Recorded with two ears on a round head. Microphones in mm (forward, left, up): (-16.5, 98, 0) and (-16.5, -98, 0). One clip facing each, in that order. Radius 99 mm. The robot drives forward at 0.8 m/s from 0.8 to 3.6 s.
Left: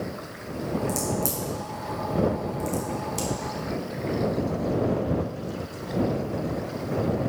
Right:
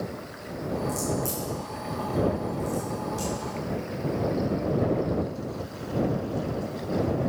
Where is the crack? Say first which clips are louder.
Left 1 dB; 25° left (ahead or behind), 6 m; by 3.3 s 35° left (ahead or behind), 4.5 m.